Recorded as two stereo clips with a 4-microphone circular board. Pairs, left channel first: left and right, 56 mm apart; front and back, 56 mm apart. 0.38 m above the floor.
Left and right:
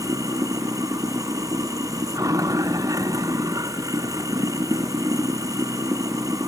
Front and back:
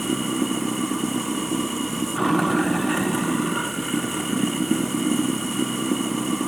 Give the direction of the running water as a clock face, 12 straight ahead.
3 o'clock.